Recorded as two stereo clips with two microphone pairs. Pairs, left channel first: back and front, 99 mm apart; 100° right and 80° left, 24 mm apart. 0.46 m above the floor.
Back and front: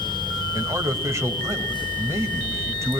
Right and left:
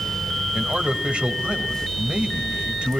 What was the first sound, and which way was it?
A man speaking, 55° left.